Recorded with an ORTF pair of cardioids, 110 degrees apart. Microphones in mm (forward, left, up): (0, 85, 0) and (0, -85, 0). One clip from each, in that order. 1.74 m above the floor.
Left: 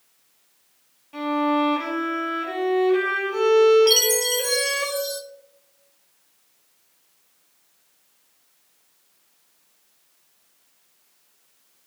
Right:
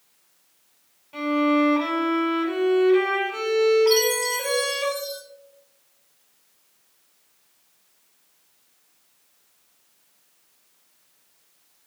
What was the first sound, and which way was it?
A violin, 5° left.